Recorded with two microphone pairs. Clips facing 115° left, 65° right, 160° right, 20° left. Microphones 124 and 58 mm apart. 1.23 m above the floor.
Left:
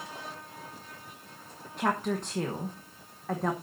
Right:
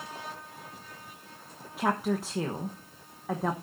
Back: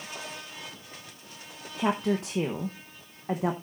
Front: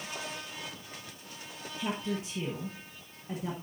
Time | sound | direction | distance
1.8 | a woman speaking | 145° right | 1.0 m